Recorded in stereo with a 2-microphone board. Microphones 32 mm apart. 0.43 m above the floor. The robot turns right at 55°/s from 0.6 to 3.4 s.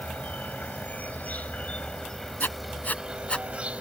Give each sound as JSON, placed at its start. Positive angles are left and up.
{"t": 0.0, "sound": "an insect", "azimuth_deg": 70}
{"t": 2.4, "sound": "writing", "side_deg": 85}